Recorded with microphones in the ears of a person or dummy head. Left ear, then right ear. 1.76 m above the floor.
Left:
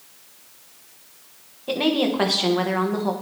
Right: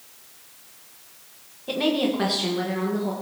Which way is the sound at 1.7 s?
10° left (ahead or behind).